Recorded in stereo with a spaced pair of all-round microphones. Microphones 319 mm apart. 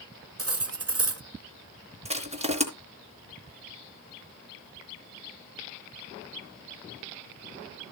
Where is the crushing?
20° right (ahead or behind), 3.5 m.